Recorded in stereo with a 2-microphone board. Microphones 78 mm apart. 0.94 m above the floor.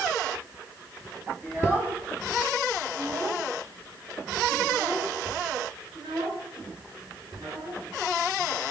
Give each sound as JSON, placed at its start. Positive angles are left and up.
{"t": 1.4, "sound": "a child speaking", "side_deg": -25, "distance_m": 4.5}